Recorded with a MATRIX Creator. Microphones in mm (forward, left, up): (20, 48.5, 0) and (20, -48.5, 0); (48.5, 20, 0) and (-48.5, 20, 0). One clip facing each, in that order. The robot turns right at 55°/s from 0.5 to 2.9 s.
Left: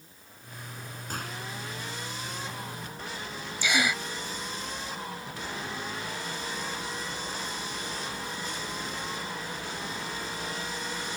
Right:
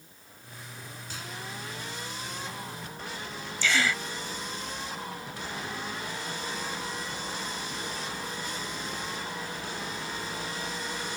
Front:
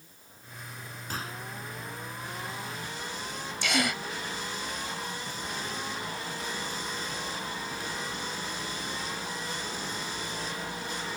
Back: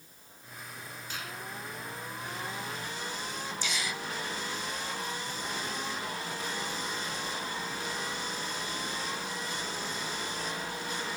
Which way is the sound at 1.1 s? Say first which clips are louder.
Left 5 dB, front 5 dB; 50° left.